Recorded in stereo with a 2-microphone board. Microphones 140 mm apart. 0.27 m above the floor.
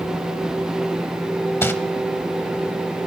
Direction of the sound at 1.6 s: 15° left (ahead or behind).